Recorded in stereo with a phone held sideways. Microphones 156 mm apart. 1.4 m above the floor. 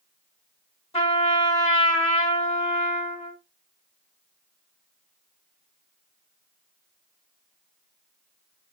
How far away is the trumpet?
About 2 m.